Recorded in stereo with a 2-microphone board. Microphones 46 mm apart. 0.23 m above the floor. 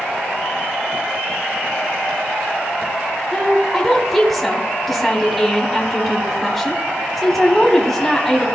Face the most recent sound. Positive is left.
turn(degrees=5)  # may be behind; listen again after turning